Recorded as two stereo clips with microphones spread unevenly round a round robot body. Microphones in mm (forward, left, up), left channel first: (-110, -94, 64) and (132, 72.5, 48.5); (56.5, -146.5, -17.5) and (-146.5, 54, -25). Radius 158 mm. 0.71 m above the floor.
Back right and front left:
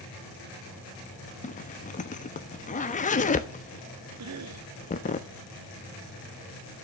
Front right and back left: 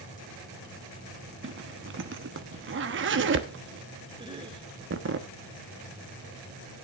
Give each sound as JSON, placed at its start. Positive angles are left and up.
{"t": 1.4, "sound": "a zipper", "azimuth_deg": 155, "distance_m": 1.0}
{"t": 4.2, "sound": "a cough", "azimuth_deg": 60, "distance_m": 1.8}